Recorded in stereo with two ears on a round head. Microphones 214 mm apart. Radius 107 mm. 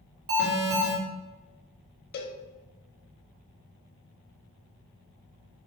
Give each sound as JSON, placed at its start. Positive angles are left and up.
{"t": 0.3, "sound": "an alarm", "side_deg": -50, "distance_m": 1.8}
{"t": 2.1, "sound": "a cowbell", "side_deg": 40, "distance_m": 0.6}